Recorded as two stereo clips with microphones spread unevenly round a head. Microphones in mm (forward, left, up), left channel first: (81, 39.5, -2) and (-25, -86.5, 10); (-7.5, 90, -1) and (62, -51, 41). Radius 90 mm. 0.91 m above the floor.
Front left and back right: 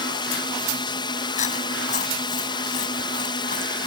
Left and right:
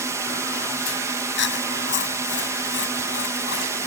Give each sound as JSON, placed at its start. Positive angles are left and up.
{"t": 0.0, "sound": "a drone", "azimuth_deg": 20}
{"t": 1.4, "sound": "chewing", "azimuth_deg": 105}